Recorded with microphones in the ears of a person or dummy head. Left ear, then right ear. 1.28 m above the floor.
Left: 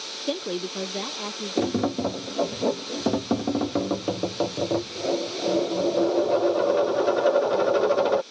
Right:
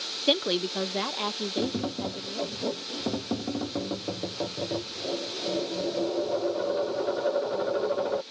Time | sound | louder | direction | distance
0.3 | a woman speaking | right 5 dB | 30° right (ahead or behind) | ?
1.6 | tapping | left 10 dB | 85° left | ?